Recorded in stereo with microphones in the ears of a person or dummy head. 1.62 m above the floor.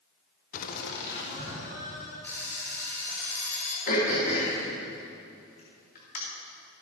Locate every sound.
0.5 s laughter: 45° left (ahead or behind), 0.8 m; by 2.1 s 70° left (ahead or behind), 3.5 m
2.2 s an alarm clock: 10° left (ahead or behind), 3 m
3.9 s throat clearing: 45° left (ahead or behind), 2.5 m